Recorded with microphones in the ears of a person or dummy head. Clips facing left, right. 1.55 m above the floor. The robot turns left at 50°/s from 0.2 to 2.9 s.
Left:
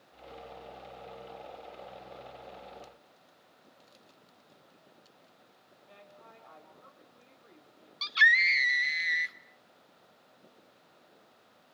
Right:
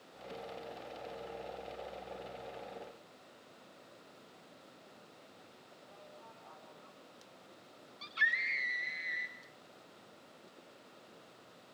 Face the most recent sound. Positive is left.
turn(degrees=70)  # may be behind; listen again after turning